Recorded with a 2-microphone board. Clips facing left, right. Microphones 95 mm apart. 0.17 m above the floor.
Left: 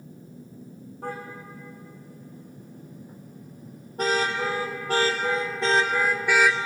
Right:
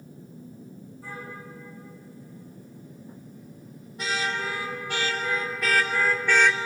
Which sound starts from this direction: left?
A car horn, at 1.0 s.